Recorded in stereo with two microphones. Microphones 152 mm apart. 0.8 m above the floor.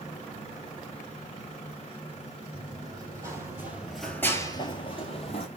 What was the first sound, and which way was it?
Running footsteps, 25° right (ahead or behind).